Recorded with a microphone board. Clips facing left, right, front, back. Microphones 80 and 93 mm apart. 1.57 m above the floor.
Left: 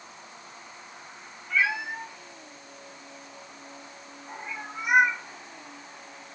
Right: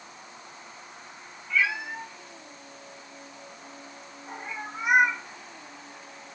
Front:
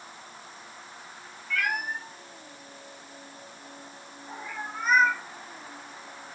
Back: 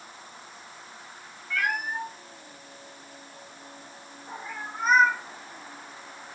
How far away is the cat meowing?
About 1.5 m.